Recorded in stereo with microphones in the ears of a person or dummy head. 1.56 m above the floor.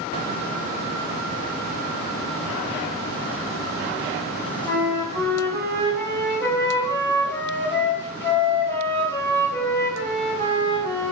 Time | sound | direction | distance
4.6 | a flute | 10° left (ahead or behind) | 2.0 m